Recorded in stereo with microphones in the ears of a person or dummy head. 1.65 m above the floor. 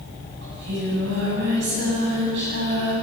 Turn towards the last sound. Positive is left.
turn(degrees=-75)  # may be behind; listen again after turning